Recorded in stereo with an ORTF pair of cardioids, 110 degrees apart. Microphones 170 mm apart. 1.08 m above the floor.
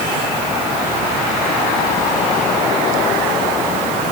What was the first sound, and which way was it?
Only background noise.